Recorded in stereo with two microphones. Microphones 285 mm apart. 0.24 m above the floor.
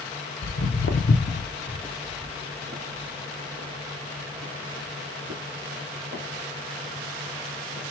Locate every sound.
0.4 s footsteps: 65° left (ahead or behind), 1.0 m; by 7.9 s 75° right (ahead or behind), 4 m